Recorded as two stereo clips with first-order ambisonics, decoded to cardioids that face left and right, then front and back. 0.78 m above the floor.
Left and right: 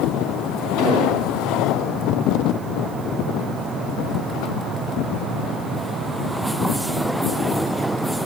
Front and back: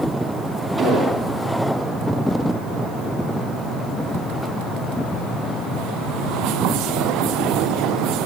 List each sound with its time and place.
0.8 s an explosion: 100° left, 7.5 m